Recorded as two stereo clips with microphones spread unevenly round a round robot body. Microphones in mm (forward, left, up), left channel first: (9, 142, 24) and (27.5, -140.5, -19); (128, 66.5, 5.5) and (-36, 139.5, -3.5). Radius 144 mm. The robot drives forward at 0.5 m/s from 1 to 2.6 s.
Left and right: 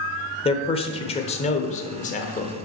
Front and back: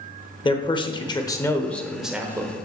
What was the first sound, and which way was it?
A man speaking, 25° left.